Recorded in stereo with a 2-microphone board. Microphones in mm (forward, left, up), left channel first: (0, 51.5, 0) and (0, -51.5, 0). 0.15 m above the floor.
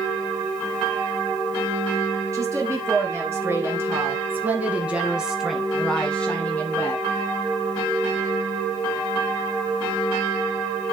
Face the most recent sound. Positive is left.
turn(degrees=20)  # may be behind; listen again after turning